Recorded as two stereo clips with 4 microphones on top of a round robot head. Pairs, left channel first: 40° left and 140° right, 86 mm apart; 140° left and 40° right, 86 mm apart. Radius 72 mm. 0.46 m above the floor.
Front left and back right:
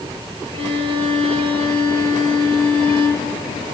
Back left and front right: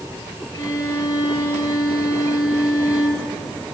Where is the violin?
160° right, 3.5 m.